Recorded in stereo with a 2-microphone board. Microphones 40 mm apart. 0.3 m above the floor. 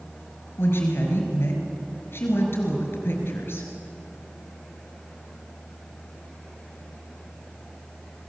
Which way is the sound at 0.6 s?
75° left (ahead or behind).